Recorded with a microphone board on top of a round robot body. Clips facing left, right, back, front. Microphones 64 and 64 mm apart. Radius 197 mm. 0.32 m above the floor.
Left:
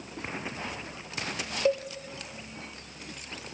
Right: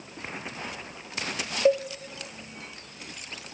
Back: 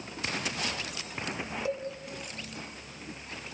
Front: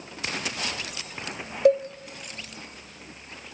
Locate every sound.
1.6 s a cowbell: 20° right, 1.2 m